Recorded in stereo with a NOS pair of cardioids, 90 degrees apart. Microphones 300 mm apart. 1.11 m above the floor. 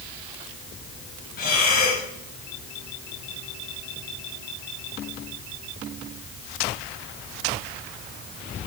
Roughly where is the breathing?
Ahead left.